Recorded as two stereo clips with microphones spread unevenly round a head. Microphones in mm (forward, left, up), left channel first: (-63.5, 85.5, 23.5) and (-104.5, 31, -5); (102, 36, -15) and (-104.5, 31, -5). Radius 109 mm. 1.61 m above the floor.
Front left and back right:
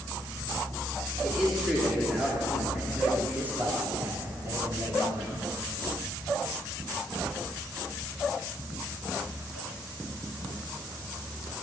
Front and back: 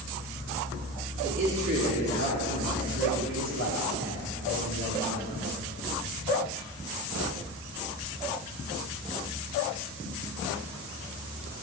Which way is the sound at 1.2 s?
140° left.